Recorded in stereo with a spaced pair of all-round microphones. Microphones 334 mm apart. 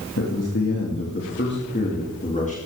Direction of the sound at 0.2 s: 55° left (ahead or behind).